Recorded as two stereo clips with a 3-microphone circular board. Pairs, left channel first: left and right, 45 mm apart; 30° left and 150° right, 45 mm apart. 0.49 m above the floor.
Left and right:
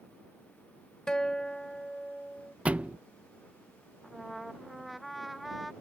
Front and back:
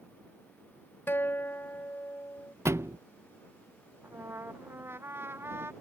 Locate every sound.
1.1 s a guitar: 20° left
2.6 s a thud: 150° right
4.0 s a trumpet: straight behind